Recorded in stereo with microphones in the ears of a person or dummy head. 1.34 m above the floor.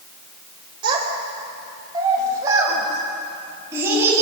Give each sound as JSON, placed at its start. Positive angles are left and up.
{"t": 0.8, "sound": "a child speaking", "side_deg": -30, "distance_m": 4.5}